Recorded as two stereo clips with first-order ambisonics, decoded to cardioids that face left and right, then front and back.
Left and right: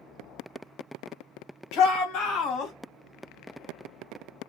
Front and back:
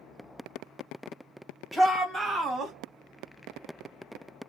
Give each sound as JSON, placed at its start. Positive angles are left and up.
{"t": 1.7, "sound": "a shout", "azimuth_deg": 90, "distance_m": 1.7}